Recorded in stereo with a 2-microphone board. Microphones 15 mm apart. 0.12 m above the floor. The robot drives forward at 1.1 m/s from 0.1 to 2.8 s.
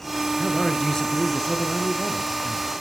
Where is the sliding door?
No sliding door in this recording.